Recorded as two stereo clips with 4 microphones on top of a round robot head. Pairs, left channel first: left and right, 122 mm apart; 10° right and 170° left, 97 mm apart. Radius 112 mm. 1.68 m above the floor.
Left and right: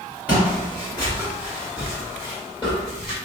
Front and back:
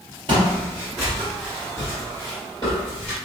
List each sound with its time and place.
0.3 s footsteps: 160° right, 1.8 m; by 3.1 s 20° right, 2.0 m